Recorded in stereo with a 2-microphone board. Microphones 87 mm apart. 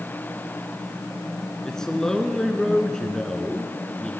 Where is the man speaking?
5° left (ahead or behind), 1.1 m.